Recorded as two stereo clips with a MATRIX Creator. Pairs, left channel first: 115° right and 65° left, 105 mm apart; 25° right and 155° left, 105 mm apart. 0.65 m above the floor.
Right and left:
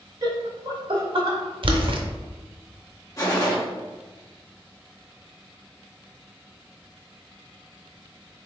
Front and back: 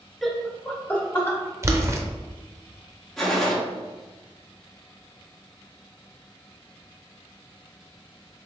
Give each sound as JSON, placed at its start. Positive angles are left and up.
{"t": 0.2, "sound": "laughter", "azimuth_deg": 65, "distance_m": 0.7}
{"t": 1.6, "sound": "boiling", "azimuth_deg": 95, "distance_m": 0.5}
{"t": 3.2, "sound": "a gunshot", "azimuth_deg": -105, "distance_m": 1.0}